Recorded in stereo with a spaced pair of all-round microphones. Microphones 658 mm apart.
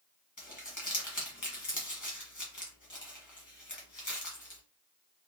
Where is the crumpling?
25° left (ahead or behind), 1.3 m.